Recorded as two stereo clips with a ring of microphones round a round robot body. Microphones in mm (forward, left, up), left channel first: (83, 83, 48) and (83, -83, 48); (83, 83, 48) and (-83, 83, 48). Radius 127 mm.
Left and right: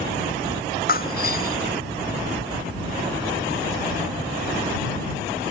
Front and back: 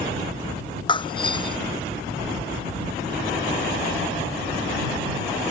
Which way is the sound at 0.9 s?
60° left.